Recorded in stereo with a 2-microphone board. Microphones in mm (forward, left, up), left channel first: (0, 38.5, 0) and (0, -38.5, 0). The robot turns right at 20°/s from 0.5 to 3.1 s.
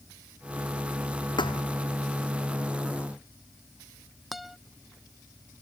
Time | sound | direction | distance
1.4 | a thud | 80° left | ?
4.3 | a guitar | 5° right (ahead or behind) | ?